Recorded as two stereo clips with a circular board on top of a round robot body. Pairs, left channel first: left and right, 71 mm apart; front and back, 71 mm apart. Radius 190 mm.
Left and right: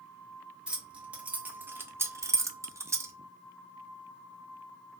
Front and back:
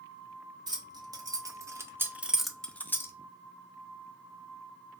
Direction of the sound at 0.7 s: 165° right.